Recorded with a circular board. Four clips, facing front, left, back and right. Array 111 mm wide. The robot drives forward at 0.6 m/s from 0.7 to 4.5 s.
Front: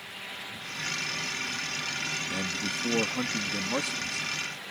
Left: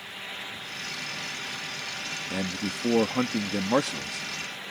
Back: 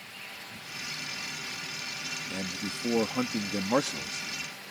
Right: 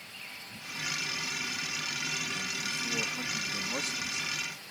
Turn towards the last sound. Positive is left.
turn(degrees=125)